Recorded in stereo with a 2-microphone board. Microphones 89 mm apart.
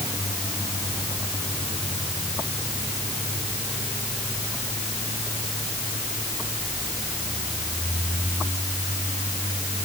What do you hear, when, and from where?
Only background noise.